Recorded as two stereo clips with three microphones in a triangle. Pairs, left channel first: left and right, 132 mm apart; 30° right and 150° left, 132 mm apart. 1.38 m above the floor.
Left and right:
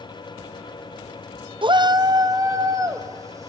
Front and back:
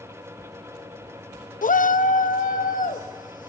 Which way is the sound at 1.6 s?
35° right.